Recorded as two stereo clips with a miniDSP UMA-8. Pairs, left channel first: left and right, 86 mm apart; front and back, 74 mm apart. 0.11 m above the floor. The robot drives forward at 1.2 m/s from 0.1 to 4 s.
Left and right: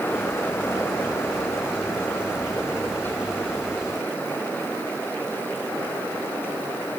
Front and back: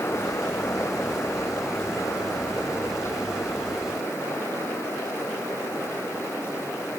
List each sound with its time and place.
Only background noise.